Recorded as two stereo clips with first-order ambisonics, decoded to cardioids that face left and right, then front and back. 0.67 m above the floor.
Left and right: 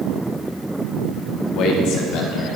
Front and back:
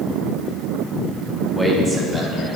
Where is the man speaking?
95° left, 0.8 m; by 2.6 s 110° left, 1.4 m.